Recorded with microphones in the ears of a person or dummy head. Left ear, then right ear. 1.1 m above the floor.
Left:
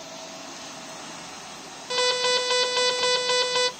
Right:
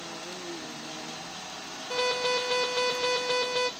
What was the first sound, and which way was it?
An alarm, 40° left (ahead or behind).